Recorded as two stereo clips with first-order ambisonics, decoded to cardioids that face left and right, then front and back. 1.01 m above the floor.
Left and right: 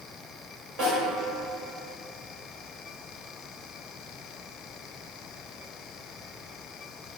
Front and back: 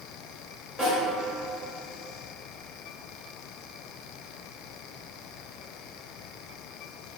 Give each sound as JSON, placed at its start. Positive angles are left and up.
{"t": 0.8, "sound": "a snare drum", "azimuth_deg": -85, "distance_m": 1.2}